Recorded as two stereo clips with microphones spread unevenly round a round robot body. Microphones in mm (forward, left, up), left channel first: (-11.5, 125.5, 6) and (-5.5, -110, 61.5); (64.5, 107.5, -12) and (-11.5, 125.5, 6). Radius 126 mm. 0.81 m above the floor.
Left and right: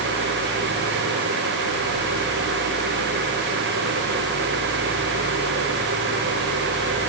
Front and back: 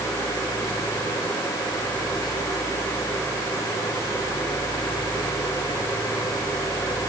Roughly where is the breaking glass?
No breaking glass in this recording.